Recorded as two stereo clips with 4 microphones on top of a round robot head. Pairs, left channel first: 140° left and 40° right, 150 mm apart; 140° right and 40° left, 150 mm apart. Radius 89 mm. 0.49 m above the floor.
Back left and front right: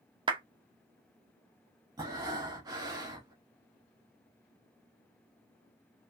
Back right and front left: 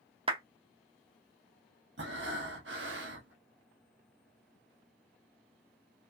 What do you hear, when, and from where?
0.3 s a clap: 5° left, 0.6 m
2.0 s breathing: 25° left, 0.6 m